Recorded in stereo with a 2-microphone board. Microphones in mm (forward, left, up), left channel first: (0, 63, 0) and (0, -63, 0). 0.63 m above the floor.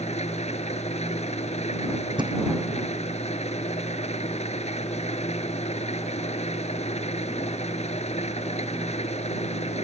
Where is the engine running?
60° left (ahead or behind).